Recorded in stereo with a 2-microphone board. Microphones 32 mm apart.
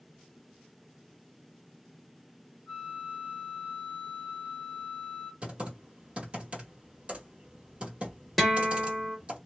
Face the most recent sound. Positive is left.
turn(degrees=0)  # may be behind; listen again after turning